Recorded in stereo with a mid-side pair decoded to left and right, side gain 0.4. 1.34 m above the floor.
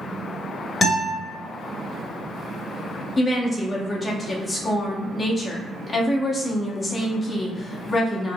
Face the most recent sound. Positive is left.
turn(degrees=35)